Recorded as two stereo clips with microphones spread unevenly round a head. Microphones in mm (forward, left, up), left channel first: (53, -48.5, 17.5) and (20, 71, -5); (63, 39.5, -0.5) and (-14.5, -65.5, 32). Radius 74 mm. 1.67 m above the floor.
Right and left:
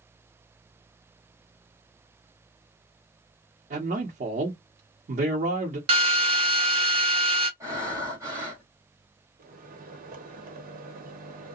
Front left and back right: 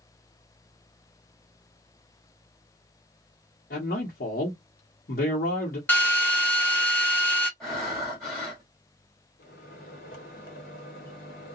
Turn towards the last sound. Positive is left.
turn(degrees=90)